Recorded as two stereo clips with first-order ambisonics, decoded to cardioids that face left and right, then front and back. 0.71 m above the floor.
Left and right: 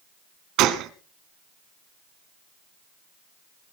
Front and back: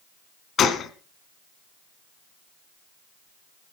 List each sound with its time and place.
0.6 s a gunshot: 55° right, 1.3 m